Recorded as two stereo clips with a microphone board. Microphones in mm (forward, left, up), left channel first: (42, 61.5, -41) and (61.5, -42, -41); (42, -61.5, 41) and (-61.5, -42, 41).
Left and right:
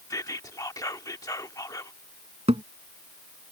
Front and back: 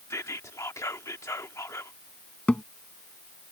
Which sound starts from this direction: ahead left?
Whispering, at 0.1 s.